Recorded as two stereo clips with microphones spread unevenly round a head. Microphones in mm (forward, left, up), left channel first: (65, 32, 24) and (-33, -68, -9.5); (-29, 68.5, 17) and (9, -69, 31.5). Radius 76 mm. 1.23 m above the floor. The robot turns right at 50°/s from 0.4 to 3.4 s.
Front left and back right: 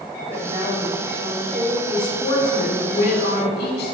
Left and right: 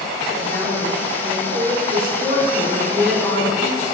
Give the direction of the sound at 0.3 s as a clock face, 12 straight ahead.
6 o'clock.